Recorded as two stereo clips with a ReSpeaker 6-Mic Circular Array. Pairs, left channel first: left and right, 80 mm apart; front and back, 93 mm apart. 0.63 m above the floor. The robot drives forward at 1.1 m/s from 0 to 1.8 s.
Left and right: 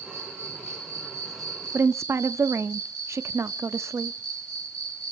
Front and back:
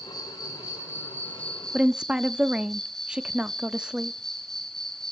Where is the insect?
35° right, 3 m; by 5.1 s 85° right, 2 m.